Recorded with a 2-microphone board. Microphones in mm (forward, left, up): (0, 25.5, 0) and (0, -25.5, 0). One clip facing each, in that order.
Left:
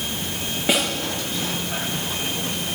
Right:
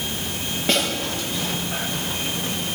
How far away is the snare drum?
About 9 m.